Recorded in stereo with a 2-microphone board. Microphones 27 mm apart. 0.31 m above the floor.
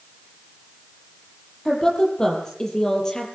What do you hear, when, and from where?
1.6 s a woman speaking: 25° left (ahead or behind), 9 m